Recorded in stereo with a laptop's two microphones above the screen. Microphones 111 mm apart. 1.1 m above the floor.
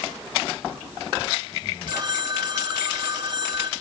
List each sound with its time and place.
1.9 s a phone ringing: 40° right (ahead or behind), 1.3 m